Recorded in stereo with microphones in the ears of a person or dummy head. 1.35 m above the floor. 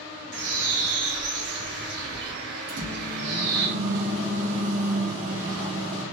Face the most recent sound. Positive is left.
turn(degrees=-70)  # may be behind; listen again after turning